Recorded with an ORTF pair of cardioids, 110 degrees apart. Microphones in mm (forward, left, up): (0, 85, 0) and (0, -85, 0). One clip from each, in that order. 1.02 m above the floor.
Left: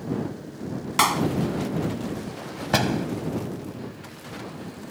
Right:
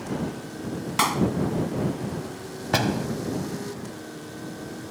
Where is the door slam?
10° left.